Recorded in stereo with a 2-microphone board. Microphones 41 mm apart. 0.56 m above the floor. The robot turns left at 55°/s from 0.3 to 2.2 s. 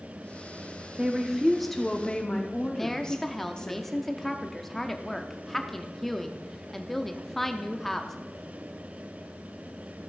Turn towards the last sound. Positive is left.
turn(degrees=10)  # may be behind; listen again after turning